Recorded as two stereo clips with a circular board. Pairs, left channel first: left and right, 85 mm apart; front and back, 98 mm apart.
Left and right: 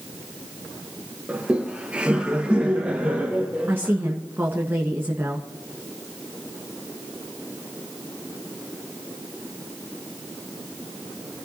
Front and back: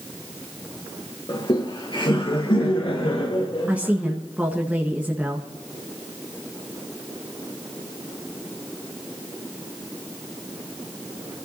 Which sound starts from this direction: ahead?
Laughter, at 1.3 s.